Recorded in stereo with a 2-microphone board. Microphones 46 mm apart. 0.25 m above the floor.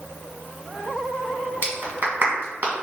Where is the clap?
45° right (ahead or behind), 1.7 m.